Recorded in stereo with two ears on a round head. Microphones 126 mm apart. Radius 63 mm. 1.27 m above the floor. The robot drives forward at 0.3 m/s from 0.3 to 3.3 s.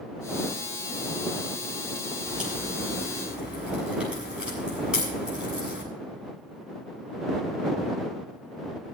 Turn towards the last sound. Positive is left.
turn(degrees=-5)  # may be behind; listen again after turning